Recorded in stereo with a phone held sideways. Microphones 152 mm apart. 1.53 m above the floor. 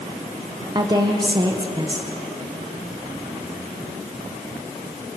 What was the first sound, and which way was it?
A woman speaking, 30° right (ahead or behind).